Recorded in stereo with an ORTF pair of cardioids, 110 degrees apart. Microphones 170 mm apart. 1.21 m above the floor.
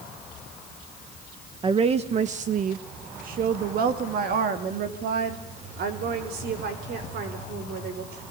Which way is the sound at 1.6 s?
30° right.